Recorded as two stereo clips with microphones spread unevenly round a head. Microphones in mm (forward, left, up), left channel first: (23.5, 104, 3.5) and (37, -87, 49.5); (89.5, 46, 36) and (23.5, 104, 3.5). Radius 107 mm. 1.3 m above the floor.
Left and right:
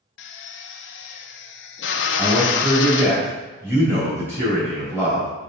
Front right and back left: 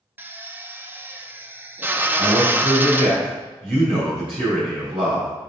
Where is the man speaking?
165° right, 3 m.